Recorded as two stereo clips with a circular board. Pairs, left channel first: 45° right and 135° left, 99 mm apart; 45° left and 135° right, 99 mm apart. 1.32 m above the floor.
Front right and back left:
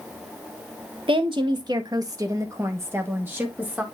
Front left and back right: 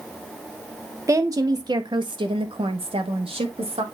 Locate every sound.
1.1 s a woman speaking: 165° left, 1.3 m; by 3.8 s 150° right, 2 m